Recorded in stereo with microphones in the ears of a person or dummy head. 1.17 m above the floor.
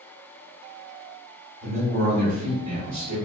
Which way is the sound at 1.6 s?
45° right (ahead or behind).